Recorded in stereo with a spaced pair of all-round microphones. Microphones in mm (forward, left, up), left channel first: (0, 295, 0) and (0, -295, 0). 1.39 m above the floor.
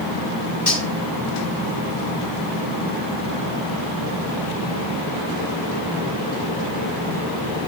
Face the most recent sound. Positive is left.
turn(degrees=30)  # may be behind; listen again after turning